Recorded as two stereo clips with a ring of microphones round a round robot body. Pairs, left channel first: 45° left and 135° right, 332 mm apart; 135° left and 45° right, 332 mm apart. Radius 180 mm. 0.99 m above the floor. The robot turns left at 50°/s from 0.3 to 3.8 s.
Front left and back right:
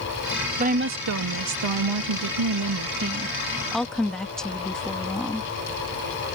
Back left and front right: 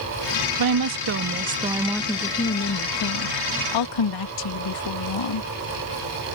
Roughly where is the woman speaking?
Ahead right.